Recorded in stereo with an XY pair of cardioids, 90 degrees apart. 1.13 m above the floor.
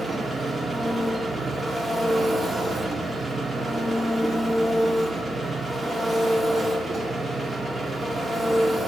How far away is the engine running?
About 2.0 m.